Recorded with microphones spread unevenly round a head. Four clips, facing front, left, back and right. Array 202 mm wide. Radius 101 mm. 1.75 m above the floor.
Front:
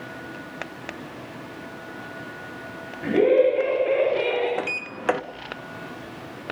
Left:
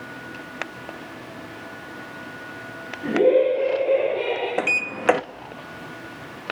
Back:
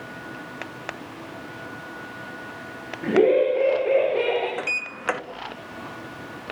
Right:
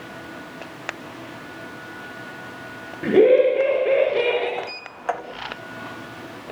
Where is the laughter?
90° right, 10 m; by 4.5 s 100° right, 10.5 m.